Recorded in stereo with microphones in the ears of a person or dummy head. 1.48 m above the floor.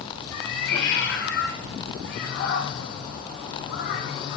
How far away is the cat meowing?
About 4.5 m.